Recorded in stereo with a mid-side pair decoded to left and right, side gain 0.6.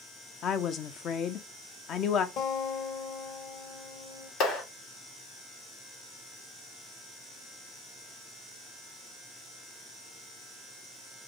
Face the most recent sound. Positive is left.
turn(degrees=70)